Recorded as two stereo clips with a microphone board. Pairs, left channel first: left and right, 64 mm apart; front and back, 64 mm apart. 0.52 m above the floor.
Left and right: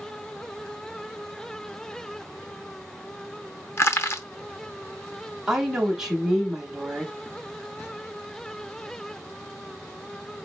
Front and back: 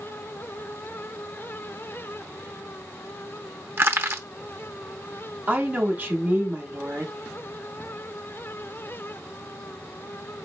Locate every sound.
3.8 s crushing: 135° left, 0.7 m
5.5 s a woman speaking: 165° right, 1.0 m